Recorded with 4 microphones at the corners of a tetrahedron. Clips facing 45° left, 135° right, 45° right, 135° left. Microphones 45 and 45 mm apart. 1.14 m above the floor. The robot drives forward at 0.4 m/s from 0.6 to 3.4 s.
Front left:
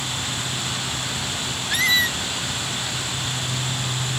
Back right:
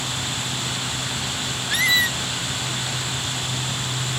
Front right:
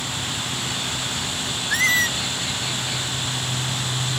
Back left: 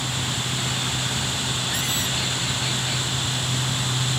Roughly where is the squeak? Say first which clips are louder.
Even, front right 7 dB; ahead right.